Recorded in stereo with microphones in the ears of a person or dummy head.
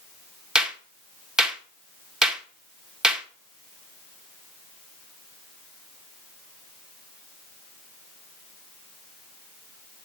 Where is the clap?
5° right (ahead or behind), 1.0 m.